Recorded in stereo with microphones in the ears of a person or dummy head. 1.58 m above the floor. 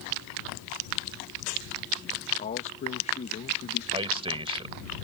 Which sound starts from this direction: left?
A man speaking, at 2.4 s.